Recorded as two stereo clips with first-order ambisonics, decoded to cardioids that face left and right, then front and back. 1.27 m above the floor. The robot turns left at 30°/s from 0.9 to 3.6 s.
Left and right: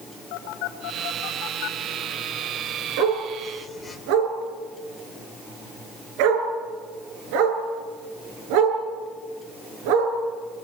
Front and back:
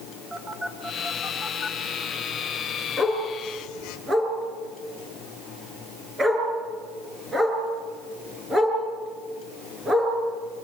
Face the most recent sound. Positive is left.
turn(degrees=-105)